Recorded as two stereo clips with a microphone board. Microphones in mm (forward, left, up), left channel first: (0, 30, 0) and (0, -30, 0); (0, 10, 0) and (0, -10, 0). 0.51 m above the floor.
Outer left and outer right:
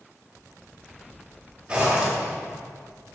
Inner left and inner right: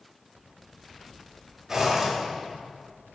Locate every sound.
1.7 s a zipper: 20° right (ahead or behind), 2 m